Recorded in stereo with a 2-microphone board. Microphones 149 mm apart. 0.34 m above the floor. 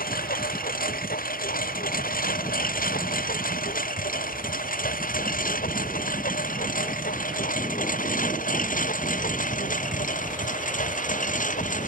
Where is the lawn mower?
75° left (ahead or behind); by 11.9 s 60° left (ahead or behind).